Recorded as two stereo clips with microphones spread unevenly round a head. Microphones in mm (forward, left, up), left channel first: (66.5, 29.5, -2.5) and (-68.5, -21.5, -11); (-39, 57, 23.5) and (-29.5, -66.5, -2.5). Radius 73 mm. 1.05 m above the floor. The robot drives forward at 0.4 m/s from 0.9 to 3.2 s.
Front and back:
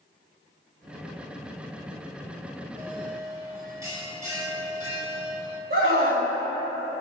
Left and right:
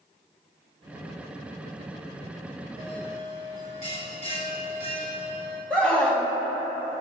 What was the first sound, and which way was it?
A bell, 130° left.